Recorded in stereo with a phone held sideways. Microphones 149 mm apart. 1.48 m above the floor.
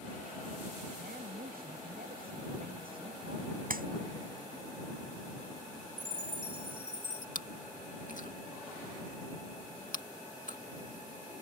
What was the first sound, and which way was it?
A woman speaking, 80° right.